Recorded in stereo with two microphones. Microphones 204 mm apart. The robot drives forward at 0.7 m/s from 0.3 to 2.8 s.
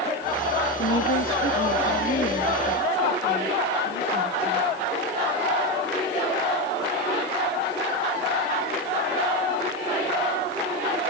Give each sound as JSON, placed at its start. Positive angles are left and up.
{"t": 0.8, "sound": "a woman speaking", "side_deg": 80, "distance_m": 1.8}